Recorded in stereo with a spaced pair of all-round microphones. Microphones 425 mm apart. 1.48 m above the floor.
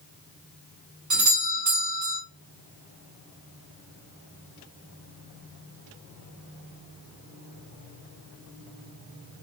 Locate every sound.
1.1 s a doorbell: 40° right (ahead or behind), 1.8 m